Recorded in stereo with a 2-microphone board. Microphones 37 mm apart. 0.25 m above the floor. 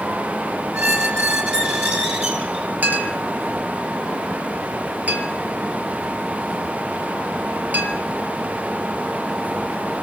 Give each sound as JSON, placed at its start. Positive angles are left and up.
{"t": 0.7, "sound": "a squeak", "side_deg": -50, "distance_m": 4.0}
{"t": 2.8, "sound": "a clink", "side_deg": -50, "distance_m": 3.0}